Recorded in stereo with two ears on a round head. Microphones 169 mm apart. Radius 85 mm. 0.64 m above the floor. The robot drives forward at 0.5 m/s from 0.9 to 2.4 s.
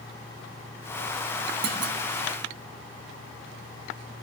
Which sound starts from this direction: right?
A clunk, at 1.6 s.